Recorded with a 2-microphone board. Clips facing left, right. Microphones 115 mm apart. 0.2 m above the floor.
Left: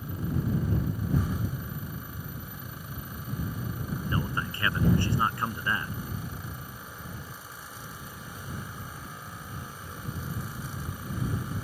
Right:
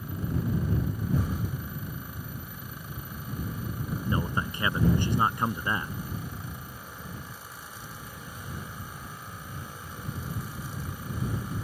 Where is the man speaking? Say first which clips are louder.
Right 2 dB; 20° right (ahead or behind).